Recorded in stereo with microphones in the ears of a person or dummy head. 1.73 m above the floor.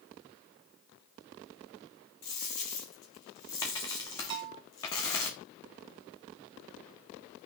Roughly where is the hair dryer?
No hair dryer in this recording.